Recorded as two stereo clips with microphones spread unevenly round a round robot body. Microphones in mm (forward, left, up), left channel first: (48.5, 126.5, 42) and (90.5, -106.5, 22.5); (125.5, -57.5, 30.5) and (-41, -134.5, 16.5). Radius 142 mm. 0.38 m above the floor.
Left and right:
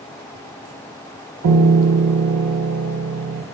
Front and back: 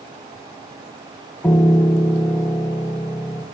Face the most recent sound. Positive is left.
turn(degrees=-55)